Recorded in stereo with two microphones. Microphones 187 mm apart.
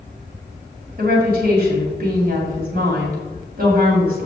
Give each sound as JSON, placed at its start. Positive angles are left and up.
{"t": 1.0, "sound": "a woman speaking", "side_deg": -55, "distance_m": 2.5}